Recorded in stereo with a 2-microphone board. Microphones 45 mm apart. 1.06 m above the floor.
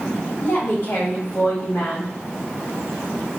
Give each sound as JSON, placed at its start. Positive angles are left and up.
{"t": 0.4, "sound": "a woman speaking", "side_deg": 55, "distance_m": 1.5}